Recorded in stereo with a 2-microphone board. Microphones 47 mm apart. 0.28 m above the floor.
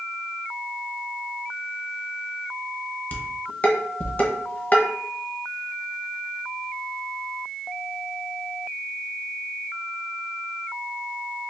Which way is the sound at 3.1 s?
35° left (ahead or behind).